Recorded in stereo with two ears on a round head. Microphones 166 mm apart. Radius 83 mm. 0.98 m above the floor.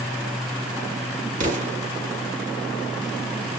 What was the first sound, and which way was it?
An explosion, 40° right (ahead or behind).